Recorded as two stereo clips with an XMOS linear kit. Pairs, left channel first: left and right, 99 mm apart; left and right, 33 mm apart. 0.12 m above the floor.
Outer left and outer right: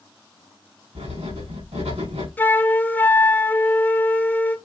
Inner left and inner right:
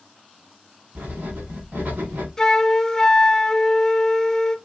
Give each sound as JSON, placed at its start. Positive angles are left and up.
{"t": 0.9, "sound": "writing", "side_deg": -85, "distance_m": 5.5}
{"t": 2.4, "sound": "a flute", "side_deg": 20, "distance_m": 0.6}